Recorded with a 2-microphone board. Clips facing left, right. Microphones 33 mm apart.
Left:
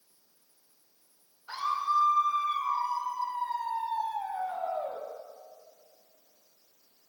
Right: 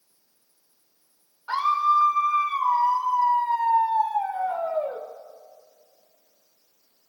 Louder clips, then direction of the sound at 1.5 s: Right 8 dB; 70° right (ahead or behind).